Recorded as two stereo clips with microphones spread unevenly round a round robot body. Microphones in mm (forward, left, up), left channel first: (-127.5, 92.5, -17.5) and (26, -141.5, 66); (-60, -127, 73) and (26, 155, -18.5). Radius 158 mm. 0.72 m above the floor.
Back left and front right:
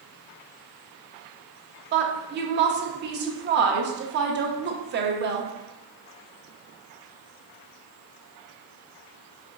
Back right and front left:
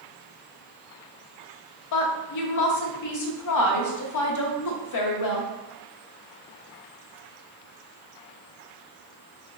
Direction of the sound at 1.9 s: 115° right.